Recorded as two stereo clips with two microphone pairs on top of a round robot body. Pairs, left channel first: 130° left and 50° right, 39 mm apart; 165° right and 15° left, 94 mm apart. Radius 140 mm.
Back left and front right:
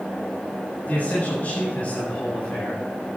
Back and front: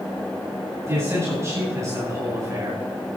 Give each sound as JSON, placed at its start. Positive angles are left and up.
{"t": 0.9, "sound": "a man speaking", "azimuth_deg": 75, "distance_m": 9.0}